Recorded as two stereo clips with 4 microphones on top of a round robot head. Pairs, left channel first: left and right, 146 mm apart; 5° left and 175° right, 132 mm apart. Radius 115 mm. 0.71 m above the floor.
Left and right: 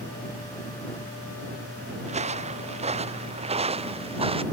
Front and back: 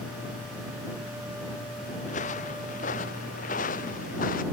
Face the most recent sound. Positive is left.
turn(degrees=-40)